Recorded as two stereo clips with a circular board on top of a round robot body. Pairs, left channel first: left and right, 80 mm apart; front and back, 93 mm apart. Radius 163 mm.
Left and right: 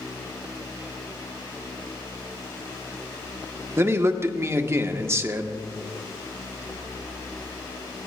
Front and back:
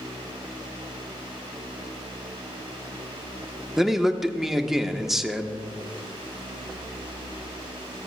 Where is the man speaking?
95° right, 1.0 m.